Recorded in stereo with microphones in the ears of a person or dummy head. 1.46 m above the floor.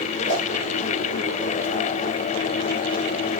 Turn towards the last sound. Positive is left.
turn(degrees=45)  # may be behind; listen again after turning